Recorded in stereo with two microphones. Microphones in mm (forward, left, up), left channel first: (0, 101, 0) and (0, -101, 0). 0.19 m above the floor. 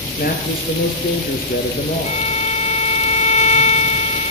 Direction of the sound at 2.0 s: 35° left (ahead or behind).